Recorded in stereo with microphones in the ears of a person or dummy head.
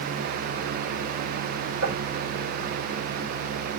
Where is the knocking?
85° right, 4.5 m.